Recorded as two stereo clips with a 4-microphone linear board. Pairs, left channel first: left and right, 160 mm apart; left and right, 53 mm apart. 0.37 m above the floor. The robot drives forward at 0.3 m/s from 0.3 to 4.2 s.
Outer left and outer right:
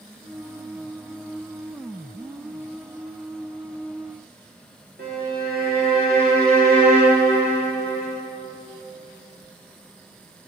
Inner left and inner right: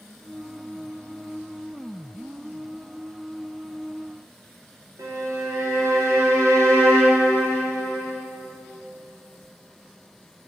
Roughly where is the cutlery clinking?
No cutlery clinking in this recording.